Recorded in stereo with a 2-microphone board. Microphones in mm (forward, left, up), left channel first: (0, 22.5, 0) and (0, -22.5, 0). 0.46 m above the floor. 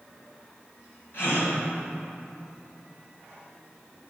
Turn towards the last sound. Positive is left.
turn(degrees=65)  # may be behind; listen again after turning